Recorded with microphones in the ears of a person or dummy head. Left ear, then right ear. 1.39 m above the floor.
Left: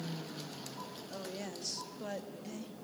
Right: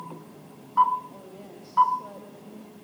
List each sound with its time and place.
1.1 s a woman speaking: 65° left (ahead or behind), 2.5 m; by 2.7 s 90° left, 2 m